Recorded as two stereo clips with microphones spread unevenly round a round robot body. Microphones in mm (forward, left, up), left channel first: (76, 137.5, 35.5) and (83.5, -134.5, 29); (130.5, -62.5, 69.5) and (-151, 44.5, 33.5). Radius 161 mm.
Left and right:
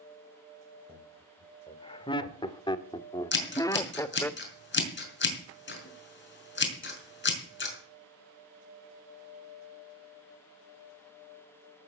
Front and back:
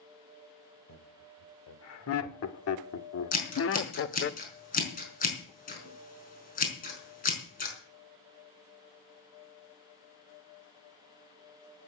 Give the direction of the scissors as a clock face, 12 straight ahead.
11 o'clock.